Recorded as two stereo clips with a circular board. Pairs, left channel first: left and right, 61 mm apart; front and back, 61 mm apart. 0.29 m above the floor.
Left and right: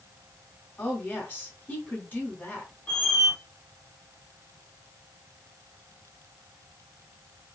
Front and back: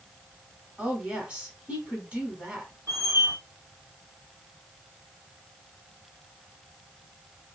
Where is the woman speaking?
130° left, 1.6 m.